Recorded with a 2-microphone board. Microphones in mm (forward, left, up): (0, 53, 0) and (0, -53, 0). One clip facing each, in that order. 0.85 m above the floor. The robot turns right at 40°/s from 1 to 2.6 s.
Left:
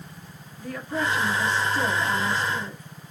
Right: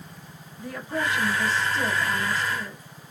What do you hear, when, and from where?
0.6 s a woman speaking: 25° right, 1.0 m; by 2.8 s 40° left, 1.0 m